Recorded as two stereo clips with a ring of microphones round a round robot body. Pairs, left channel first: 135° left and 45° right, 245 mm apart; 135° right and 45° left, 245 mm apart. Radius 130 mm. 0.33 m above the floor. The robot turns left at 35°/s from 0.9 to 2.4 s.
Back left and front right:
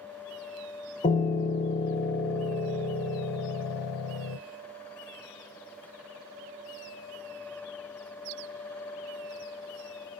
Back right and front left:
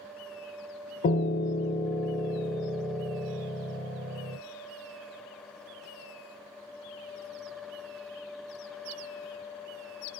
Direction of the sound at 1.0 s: 175° right.